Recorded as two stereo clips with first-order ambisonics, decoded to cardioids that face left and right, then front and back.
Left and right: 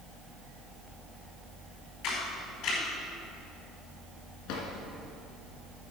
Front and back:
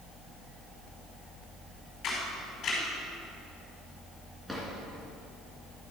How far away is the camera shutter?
About 5 m.